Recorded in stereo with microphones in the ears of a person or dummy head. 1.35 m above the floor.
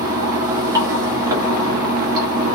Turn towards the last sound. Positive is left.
turn(degrees=-20)  # may be behind; listen again after turning